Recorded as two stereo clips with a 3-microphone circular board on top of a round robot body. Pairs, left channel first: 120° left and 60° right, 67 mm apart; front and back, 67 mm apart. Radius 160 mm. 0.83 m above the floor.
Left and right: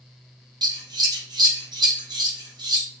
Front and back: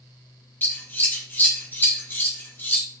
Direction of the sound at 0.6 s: 60° right.